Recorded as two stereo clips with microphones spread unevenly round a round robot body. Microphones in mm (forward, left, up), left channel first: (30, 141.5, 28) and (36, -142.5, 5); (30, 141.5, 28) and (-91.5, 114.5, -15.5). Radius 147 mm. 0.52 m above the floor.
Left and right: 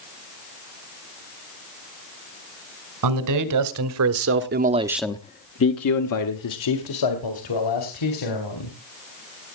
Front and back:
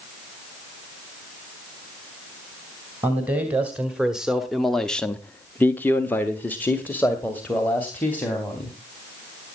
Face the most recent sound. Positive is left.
turn(degrees=95)